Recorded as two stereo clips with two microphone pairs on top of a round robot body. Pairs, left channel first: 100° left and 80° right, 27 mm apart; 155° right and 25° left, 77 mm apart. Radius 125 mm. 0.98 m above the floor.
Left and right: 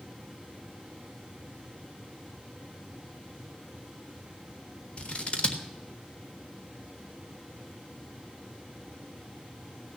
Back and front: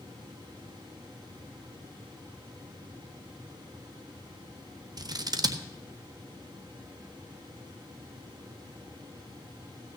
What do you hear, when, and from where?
5.0 s scissors: 50° left, 1.4 m